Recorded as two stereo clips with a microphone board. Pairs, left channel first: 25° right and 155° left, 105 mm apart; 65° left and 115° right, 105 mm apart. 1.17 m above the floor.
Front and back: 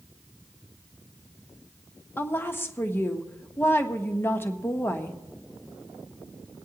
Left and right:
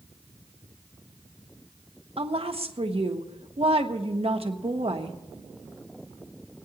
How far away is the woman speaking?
About 1.0 m.